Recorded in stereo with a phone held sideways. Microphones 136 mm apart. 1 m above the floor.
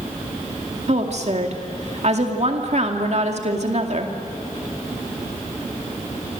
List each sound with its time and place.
0.9 s a woman speaking: 55° right (ahead or behind), 2.5 m